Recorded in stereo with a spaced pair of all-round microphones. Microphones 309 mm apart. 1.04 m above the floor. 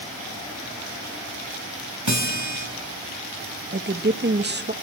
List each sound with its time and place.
2.1 s a guitar: 70° right (ahead or behind), 4 m
3.7 s a woman speaking: 35° right (ahead or behind), 0.9 m